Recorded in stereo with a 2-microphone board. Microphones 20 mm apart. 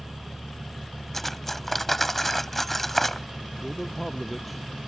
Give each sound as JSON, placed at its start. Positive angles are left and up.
{"t": 1.1, "sound": "cutlery clinking", "side_deg": 10}
{"t": 3.6, "sound": "a man speaking", "side_deg": 5}